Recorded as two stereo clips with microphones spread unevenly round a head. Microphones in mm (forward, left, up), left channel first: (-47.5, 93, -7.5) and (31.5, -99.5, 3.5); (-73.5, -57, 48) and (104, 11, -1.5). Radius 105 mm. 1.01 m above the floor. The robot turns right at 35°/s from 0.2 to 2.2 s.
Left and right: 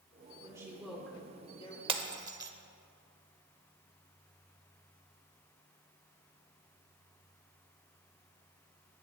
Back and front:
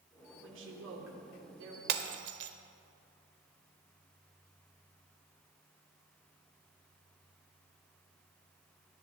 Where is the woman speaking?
5° left, 3 m; by 1.8 s 50° left, 3 m.